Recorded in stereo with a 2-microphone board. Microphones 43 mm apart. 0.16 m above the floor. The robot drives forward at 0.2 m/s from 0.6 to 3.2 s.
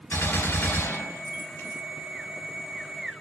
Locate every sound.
0.1 s a gunshot: 55° left (ahead or behind), 1.5 m